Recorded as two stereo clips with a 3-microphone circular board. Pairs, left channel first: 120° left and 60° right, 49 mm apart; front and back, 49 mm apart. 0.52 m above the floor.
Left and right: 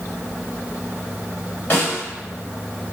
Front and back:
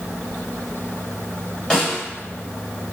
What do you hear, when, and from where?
1.7 s a snare drum: 70° left, 1.6 m